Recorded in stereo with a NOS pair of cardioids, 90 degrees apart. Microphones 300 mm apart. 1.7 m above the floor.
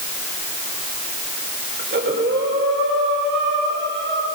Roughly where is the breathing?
Ahead right.